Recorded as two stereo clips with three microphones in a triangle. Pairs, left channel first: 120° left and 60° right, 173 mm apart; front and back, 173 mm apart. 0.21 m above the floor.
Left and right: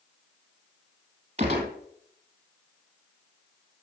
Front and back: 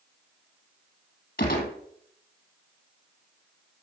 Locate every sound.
1.4 s a gunshot: 10° right, 3 m